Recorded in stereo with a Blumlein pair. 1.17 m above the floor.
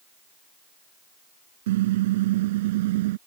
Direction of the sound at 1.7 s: 55° right.